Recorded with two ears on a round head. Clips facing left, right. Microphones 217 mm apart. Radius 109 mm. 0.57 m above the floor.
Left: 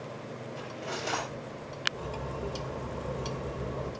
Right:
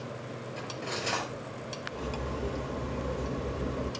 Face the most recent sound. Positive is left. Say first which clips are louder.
# right 3 dB
turn(degrees=-30)  # may be behind; listen again after turning